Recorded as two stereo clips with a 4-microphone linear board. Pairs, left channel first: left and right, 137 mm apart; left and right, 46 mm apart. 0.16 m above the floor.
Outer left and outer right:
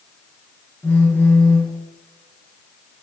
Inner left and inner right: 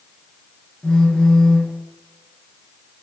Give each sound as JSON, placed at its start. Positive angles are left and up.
{"t": 0.8, "sound": "a phone buzzing", "side_deg": 15, "distance_m": 1.1}